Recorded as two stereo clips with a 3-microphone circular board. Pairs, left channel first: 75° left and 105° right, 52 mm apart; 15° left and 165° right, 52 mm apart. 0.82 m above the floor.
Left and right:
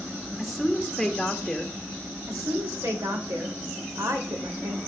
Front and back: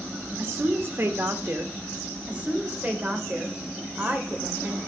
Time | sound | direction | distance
0.4 | a woman speaking | 165° left | 1.3 m
2.3 | a woman speaking | 105° right | 3 m